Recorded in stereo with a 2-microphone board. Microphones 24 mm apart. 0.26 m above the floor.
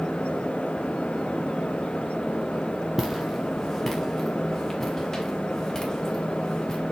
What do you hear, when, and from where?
3.0 s footsteps: 5° right (ahead or behind), 1.9 m; by 6.8 s 25° left (ahead or behind), 4.5 m